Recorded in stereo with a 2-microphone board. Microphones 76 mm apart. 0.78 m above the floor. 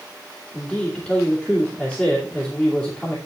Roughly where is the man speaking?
Centre.